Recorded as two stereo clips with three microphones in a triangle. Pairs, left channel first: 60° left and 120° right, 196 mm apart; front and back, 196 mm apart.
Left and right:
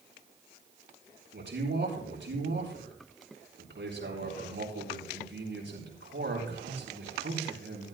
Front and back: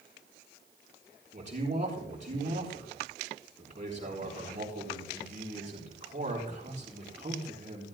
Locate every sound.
1.3 s a man speaking: 130° right, 6 m